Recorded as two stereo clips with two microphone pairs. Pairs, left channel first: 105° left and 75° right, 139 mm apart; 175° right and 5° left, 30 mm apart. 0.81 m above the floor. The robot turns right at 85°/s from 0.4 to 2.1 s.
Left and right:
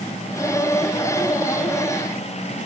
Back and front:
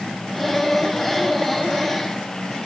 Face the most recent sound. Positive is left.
No sound to turn to.